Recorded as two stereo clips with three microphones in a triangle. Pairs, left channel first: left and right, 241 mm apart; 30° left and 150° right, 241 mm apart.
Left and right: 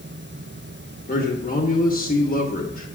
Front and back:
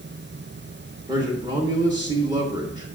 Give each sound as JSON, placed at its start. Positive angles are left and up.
{"t": 1.1, "sound": "a man speaking", "azimuth_deg": 140, "distance_m": 1.1}